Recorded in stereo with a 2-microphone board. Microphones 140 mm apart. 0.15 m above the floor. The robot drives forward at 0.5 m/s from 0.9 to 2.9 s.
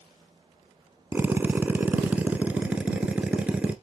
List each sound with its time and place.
1.1 s a drill: 15° right (ahead or behind), 0.8 m; by 3.7 s 10° right (ahead or behind), 1.4 m